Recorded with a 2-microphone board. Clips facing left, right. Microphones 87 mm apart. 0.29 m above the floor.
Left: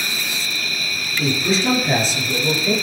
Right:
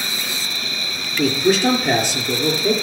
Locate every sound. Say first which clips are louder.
0.0 s an insect: left 1 dB; 25° right (ahead or behind), 1.8 m
1.2 s a man speaking: right 4 dB; 55° right (ahead or behind), 4.5 m